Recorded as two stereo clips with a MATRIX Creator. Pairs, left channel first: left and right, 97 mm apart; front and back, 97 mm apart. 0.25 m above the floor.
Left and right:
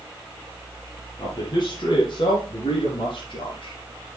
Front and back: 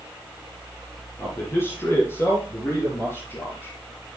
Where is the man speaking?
60° left, 2.5 m; by 3.8 s 65° left, 3.5 m.